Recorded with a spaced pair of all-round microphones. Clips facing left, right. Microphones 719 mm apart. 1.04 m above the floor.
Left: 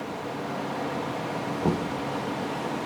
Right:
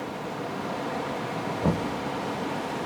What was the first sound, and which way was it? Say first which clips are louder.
Knocking: even; 15° right (ahead or behind).